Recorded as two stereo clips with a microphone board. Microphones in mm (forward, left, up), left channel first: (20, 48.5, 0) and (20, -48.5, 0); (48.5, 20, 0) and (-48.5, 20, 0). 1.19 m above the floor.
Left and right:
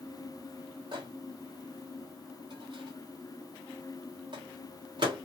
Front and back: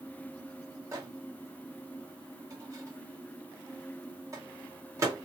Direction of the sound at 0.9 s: 125° right.